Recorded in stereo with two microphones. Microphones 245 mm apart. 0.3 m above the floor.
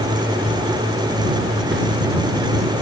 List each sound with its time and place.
1.7 s a whoosh: 55° right (ahead or behind)